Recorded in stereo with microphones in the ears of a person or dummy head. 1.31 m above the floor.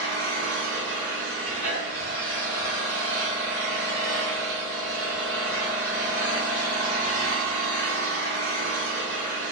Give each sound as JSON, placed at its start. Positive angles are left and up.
{"t": 0.0, "sound": "an engine running", "side_deg": 20, "distance_m": 0.8}